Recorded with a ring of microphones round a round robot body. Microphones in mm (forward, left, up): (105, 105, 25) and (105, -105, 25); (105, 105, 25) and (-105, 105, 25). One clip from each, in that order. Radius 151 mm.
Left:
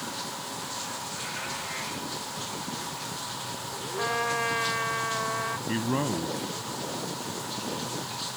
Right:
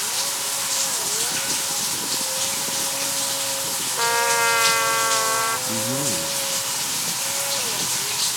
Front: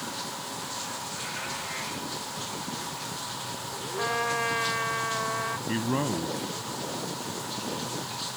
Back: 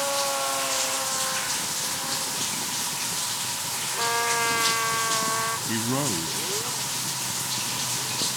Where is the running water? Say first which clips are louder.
Right 9 dB, back 10 dB; 120° right.